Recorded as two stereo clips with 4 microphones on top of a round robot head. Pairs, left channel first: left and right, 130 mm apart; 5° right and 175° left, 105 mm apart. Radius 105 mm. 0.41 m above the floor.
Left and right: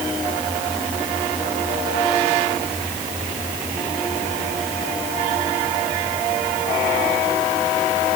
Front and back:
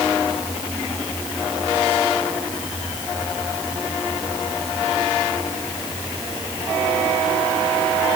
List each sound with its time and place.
Only background noise.